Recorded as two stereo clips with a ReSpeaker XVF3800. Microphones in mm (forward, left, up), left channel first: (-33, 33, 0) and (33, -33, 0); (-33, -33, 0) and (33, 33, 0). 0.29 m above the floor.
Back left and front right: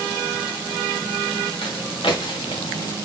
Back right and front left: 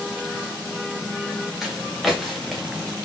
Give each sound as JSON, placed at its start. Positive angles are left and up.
{"t": 1.6, "sound": "footsteps", "azimuth_deg": 130, "distance_m": 2.5}